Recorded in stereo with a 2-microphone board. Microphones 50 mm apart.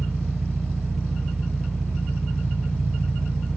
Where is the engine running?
5° left (ahead or behind), 1.2 m.